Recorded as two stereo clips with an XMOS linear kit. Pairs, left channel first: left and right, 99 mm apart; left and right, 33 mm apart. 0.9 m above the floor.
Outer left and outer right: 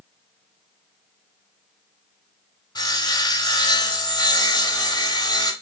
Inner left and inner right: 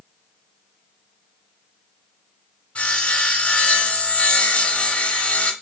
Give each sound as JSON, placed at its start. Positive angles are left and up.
{"t": 2.8, "sound": "sawing", "side_deg": 45, "distance_m": 0.8}